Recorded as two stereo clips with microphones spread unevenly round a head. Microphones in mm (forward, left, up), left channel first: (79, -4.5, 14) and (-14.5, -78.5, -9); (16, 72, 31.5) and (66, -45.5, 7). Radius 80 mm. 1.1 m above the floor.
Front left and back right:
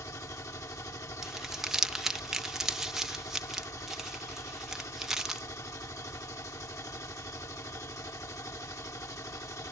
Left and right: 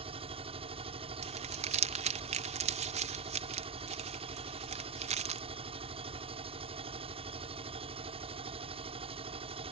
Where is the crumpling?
60° right.